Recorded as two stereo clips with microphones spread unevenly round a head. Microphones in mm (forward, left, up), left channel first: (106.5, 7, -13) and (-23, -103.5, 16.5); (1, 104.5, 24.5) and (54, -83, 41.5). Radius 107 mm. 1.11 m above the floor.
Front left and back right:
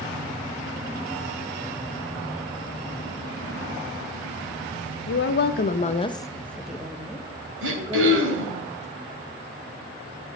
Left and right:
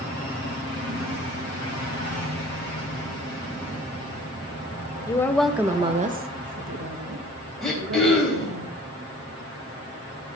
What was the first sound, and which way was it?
A woman speaking, 35° left.